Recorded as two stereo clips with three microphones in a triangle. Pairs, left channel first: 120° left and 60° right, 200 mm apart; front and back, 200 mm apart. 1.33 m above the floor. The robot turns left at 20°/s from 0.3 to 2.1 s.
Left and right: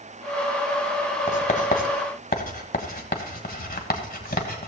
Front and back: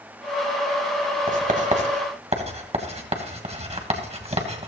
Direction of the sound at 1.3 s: 155° left.